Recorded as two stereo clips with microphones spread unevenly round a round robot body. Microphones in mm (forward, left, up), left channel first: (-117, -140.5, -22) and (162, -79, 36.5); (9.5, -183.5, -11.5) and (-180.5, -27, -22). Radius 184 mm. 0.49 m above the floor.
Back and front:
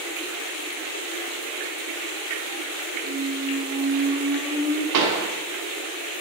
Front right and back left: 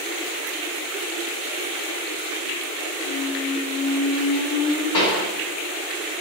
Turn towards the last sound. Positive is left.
turn(degrees=5)